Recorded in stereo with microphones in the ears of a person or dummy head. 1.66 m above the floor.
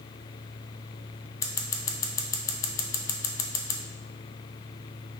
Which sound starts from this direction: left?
Scissors, at 1.4 s.